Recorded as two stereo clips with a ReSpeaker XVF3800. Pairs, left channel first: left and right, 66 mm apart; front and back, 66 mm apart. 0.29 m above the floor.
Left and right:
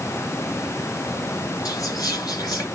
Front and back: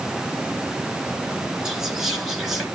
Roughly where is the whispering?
Left.